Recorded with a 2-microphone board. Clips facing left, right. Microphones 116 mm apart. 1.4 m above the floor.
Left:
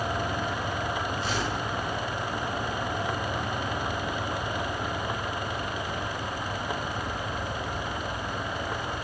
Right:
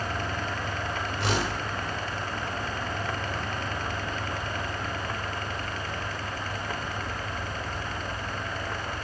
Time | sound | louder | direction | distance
1.2 | a whoosh | right 1 dB | 90° right | 6 m